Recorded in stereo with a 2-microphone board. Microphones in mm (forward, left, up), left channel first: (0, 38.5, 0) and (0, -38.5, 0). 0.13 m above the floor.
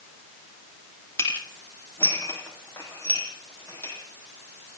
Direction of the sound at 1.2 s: 35° left (ahead or behind).